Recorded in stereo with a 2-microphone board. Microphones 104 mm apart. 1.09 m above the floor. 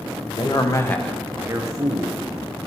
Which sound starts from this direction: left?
A man speaking, at 0.3 s.